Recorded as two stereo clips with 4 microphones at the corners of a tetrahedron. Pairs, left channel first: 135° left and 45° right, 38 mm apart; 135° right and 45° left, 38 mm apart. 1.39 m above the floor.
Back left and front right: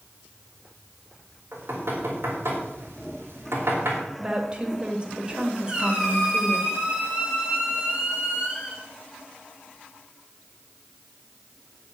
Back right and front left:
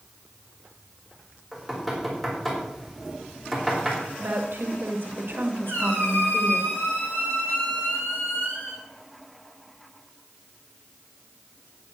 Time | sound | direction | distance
1.5 | knocking | 50° right | 4.5 m
4.2 | a woman speaking | 20° left | 2.5 m
5.7 | a squeak | 115° right | 7.5 m